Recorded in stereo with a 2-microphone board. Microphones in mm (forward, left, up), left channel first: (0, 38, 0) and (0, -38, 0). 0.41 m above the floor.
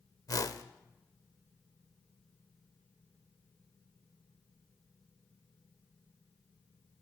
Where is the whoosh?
50° left (ahead or behind), 0.7 m.